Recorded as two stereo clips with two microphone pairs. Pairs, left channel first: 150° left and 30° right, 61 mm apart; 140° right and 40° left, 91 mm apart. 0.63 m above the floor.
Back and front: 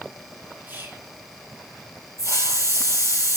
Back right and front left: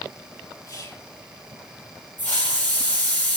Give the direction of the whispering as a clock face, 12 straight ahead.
3 o'clock.